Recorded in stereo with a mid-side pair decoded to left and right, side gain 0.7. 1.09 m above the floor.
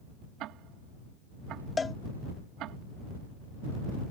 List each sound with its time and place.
0.4 s ticking: 55° right
1.8 s a cowbell: 20° left